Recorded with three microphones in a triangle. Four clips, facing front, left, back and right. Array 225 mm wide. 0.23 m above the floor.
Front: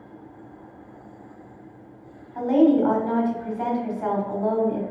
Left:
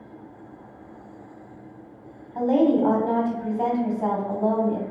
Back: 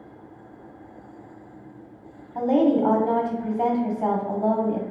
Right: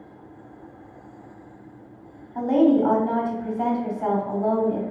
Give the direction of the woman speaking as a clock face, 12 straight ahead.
6 o'clock.